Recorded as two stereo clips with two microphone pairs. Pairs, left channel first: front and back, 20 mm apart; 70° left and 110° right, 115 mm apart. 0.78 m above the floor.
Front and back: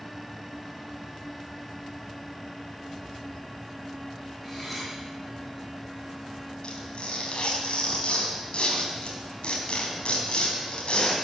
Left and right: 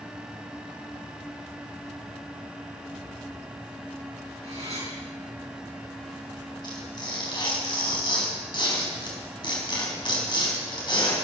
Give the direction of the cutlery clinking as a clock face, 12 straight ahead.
3 o'clock.